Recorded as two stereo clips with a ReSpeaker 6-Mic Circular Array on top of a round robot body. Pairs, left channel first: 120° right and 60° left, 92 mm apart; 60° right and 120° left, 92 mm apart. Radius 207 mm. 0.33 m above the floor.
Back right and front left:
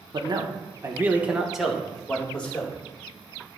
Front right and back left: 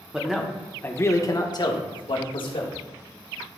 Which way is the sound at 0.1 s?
40° left.